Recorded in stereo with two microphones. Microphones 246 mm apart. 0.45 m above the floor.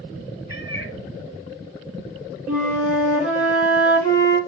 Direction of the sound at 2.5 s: 75° right (ahead or behind).